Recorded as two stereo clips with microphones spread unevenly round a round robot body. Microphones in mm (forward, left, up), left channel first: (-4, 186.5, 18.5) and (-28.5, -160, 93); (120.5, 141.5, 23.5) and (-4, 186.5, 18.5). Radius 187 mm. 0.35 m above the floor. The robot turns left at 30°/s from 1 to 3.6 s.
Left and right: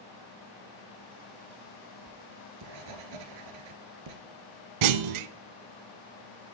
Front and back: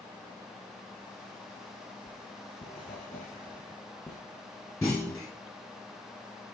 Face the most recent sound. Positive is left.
turn(degrees=-100)